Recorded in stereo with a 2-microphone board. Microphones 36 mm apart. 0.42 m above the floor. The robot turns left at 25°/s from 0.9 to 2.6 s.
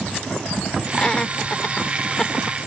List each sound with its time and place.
0.9 s laughter: 30° left (ahead or behind); by 2.6 s 15° left (ahead or behind)